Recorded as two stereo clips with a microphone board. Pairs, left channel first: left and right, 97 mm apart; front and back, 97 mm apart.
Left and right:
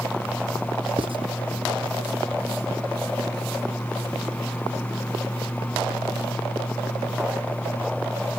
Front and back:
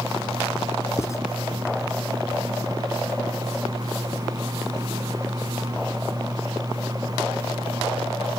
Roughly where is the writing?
Ahead right.